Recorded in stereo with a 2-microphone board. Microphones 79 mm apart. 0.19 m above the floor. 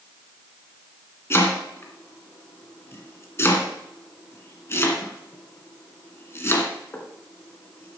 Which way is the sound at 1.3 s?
35° left (ahead or behind).